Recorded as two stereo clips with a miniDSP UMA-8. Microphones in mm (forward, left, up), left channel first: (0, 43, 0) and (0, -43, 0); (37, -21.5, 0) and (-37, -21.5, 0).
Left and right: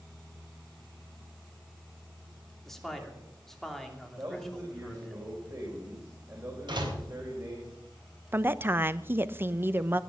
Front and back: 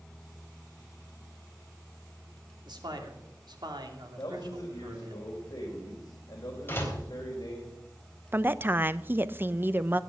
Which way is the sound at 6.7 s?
60° right.